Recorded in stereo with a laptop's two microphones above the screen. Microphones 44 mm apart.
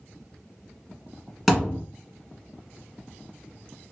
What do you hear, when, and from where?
1.5 s a thud: 5° right (ahead or behind), 1.1 m